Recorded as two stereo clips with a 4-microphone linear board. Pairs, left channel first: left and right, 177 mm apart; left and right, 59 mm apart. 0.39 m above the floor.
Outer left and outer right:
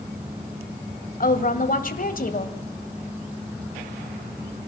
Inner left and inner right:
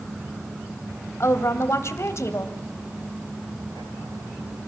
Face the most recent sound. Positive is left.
turn(degrees=50)  # may be behind; listen again after turning